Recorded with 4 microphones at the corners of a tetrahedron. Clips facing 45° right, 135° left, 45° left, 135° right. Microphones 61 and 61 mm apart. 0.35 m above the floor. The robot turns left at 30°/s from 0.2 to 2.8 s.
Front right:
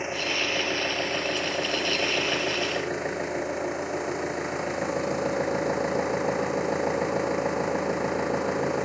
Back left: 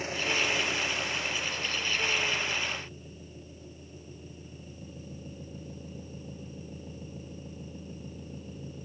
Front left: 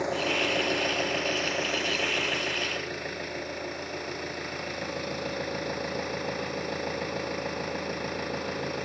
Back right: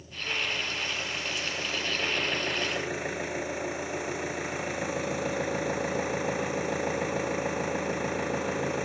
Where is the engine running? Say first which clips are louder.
Front right 2 dB, front left 7 dB; 25° left; by 8.9 s 55° right.